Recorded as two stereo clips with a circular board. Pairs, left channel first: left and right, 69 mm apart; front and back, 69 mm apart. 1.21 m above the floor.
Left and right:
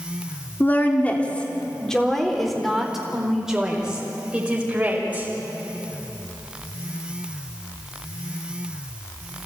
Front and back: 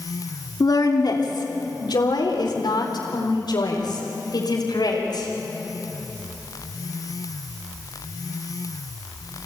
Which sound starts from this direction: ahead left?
A woman speaking, at 0.6 s.